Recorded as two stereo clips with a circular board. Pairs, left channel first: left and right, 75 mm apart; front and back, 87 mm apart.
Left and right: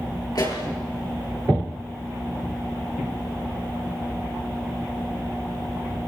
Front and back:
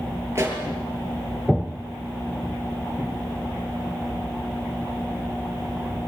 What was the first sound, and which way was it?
A pop, 120° left.